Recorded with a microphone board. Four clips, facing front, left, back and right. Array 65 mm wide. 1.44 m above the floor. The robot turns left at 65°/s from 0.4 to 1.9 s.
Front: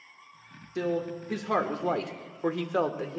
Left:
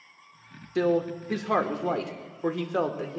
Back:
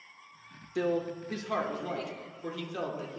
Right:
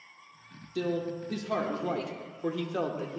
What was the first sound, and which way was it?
A man speaking, 105° left.